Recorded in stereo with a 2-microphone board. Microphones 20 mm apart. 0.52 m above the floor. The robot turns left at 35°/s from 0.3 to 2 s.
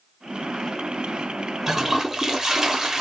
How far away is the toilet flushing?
About 0.9 m.